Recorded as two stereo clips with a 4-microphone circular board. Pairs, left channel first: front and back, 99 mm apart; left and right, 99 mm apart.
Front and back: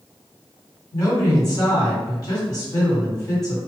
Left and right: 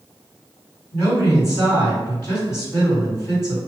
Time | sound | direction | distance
0.9 | a woman speaking | 40° left | 1.8 m